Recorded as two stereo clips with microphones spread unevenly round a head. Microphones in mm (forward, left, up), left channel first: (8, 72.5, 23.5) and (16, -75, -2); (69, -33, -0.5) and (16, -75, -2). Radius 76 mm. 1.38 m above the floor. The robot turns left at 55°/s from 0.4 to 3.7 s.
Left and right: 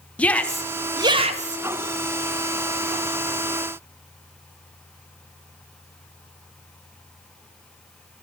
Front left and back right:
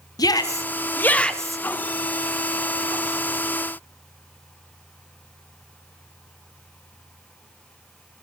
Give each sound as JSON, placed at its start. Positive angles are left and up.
{"t": 0.2, "sound": "a shout", "azimuth_deg": 10, "distance_m": 0.9}